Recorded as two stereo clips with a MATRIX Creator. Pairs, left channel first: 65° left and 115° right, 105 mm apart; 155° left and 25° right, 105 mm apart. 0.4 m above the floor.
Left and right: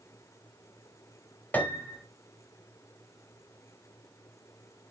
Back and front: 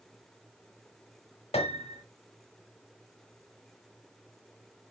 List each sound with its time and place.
1.5 s a piano: 140° left, 1.1 m